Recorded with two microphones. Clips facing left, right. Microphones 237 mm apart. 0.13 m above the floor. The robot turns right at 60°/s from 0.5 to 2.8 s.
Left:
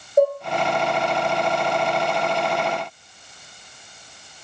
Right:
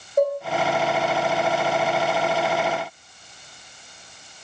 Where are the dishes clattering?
30° left (ahead or behind), 1.5 m.